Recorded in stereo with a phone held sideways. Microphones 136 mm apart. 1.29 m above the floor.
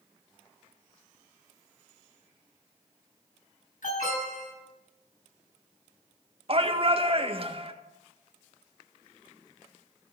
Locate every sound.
3.8 s an alarm: 70° left (ahead or behind), 8.5 m
6.5 s a shout: 45° right (ahead or behind), 1.7 m